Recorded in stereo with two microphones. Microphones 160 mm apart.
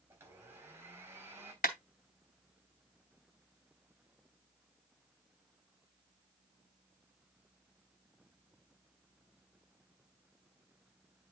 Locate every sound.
0.1 s a blender: 15° right (ahead or behind), 3.5 m
1.6 s a clap: 65° left (ahead or behind), 1.9 m